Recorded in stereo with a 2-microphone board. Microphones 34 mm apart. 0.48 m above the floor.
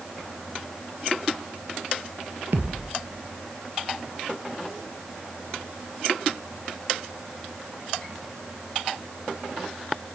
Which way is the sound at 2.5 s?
75° right (ahead or behind).